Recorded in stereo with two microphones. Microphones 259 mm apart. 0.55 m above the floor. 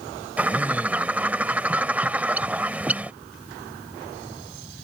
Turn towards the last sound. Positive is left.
turn(degrees=-5)  # may be behind; listen again after turning